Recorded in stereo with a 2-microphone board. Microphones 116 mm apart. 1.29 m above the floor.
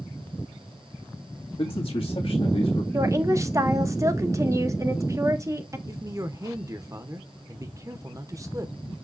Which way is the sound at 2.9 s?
30° right (ahead or behind).